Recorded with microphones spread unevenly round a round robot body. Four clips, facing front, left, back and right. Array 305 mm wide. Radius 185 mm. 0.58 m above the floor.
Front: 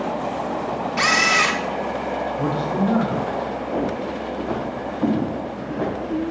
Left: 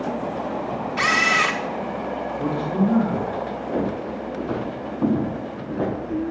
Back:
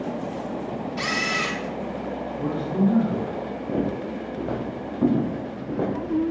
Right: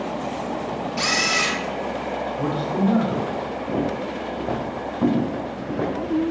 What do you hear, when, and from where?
1.0 s a camera shutter: 35° left, 0.8 m
2.4 s a man speaking: 35° right, 3 m
3.7 s footsteps: 140° right, 3 m; by 6.3 s 125° right, 4.5 m